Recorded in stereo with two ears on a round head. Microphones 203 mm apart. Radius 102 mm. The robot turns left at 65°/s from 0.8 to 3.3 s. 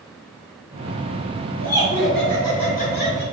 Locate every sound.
1.6 s laughter: 150° right, 2 m; by 3.2 s 105° left, 2 m